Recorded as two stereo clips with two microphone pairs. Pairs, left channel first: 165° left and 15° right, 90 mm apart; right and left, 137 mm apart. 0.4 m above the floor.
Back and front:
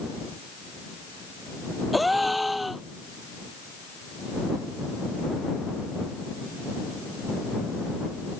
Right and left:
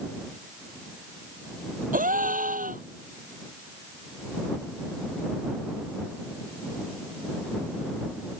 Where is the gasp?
75° left.